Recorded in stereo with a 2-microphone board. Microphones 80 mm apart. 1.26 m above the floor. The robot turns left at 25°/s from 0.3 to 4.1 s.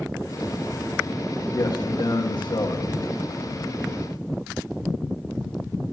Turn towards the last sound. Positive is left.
turn(degrees=60)